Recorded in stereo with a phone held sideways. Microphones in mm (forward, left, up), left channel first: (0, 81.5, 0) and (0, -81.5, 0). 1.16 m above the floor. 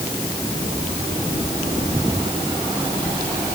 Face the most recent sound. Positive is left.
No sound to turn to.